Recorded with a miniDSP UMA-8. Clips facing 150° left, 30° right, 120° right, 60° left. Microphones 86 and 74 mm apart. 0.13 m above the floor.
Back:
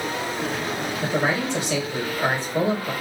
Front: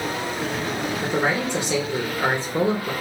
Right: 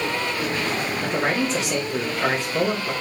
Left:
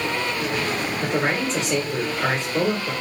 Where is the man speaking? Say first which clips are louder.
Even, even; 35° right, 1.1 m.